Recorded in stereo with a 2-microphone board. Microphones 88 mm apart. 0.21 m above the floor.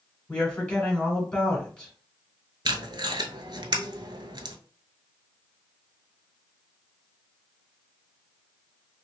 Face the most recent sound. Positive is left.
turn(degrees=-60)  # may be behind; listen again after turning